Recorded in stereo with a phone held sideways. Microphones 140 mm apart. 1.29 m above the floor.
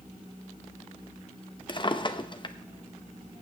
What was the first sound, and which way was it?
A drawer, 35° left (ahead or behind).